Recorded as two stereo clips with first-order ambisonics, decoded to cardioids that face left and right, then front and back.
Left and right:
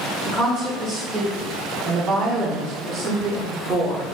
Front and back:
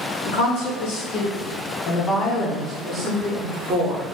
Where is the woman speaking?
20° right, 1.8 m; by 4.1 s 145° right, 1.2 m.